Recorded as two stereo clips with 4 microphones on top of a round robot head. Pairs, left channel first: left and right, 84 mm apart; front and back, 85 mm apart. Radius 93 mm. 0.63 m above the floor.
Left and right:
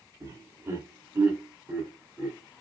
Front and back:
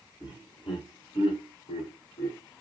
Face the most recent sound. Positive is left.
turn(degrees=-5)